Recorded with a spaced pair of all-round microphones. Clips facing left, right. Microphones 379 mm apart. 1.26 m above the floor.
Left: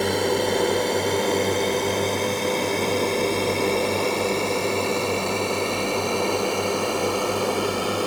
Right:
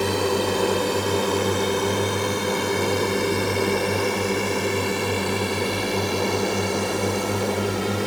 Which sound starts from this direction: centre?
A drone, at 0.0 s.